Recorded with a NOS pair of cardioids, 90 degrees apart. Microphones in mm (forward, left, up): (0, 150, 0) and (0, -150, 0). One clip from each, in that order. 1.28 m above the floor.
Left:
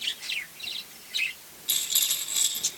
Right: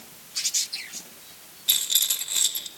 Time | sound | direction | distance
1.7 | a rattle | 45° right | 1.8 m